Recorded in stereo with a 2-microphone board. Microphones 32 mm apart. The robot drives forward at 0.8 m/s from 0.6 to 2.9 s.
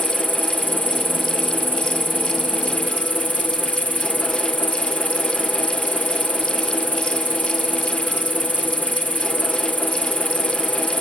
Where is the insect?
70° right (ahead or behind); by 11.0 s 65° right (ahead or behind).